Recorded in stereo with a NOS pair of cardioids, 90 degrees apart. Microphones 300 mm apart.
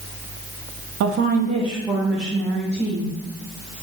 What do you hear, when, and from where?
1.0 s a woman speaking: 60° right, 0.7 m; by 3.1 s 10° left, 2.5 m